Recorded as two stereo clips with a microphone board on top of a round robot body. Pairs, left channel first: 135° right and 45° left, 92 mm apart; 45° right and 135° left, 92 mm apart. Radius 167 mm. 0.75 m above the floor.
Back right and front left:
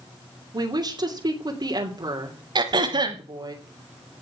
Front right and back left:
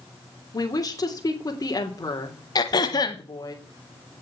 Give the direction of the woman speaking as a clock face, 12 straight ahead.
12 o'clock.